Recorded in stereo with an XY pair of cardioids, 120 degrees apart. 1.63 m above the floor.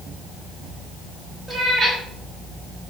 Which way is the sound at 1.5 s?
5° right.